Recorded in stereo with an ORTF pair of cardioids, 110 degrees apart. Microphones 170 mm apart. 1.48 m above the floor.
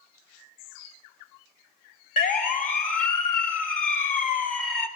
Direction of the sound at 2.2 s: 50° left.